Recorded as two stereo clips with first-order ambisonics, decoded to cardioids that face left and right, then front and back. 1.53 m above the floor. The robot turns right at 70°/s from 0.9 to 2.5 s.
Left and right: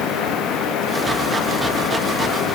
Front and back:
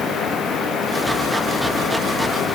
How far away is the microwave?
I don't hear a microwave.